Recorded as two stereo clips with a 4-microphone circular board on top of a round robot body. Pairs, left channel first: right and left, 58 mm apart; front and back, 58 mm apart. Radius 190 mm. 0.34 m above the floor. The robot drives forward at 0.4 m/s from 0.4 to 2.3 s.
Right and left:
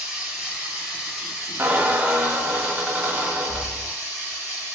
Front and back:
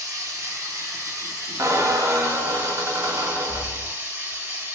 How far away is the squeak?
About 0.6 m.